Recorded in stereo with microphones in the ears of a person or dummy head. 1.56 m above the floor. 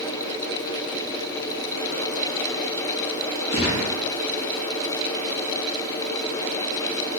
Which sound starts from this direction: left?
A gunshot, at 3.5 s.